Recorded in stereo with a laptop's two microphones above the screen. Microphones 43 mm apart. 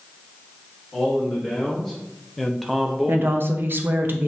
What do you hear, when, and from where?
0.9 s a man speaking: 10° left (ahead or behind), 1.5 m; by 3.4 s 10° right (ahead or behind), 1.1 m
3.1 s a woman speaking: 55° right (ahead or behind), 0.6 m